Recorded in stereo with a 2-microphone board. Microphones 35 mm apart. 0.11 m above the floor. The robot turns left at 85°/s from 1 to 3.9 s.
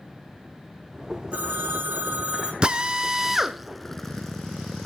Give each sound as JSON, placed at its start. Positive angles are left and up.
{"t": 1.3, "sound": "a phone ringing", "azimuth_deg": -50, "distance_m": 4.5}
{"t": 2.6, "sound": "a drill", "side_deg": -25, "distance_m": 0.7}